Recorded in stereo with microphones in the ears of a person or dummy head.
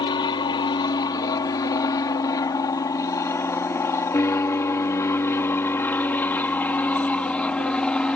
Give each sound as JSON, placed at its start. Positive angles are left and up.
{"t": 0.0, "sound": "an aircraft", "side_deg": 20}